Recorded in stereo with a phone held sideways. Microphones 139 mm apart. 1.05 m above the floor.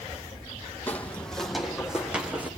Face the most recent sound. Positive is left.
turn(degrees=-10)  # may be behind; listen again after turning